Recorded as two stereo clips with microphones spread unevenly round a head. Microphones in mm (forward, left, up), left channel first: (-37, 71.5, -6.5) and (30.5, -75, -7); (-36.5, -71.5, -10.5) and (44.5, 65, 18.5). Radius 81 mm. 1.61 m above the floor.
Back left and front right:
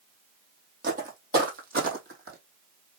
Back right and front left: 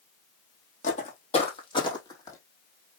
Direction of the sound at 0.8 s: 80° right.